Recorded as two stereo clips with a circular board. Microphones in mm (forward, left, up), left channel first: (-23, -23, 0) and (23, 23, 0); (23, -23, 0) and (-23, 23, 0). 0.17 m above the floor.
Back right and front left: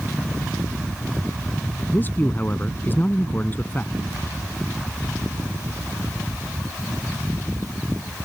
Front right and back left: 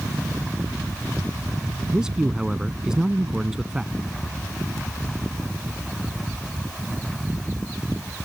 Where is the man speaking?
155° right.